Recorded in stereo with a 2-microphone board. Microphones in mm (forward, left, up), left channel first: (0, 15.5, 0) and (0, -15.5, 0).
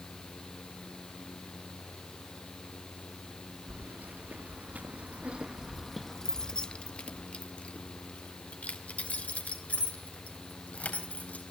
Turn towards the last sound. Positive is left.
turn(degrees=60)  # may be behind; listen again after turning